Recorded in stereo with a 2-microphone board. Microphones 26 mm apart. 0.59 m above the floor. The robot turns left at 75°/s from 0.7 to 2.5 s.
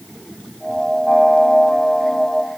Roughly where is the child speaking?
No child speaking in this recording.